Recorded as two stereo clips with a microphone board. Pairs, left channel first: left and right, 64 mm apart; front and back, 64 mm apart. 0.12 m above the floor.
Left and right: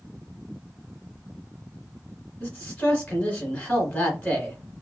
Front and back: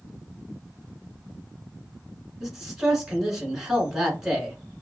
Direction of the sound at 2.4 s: 105° left.